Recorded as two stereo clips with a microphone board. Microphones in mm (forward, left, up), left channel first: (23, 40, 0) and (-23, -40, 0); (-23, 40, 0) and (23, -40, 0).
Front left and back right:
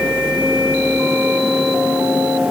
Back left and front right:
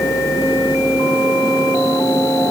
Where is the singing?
I don't hear singing.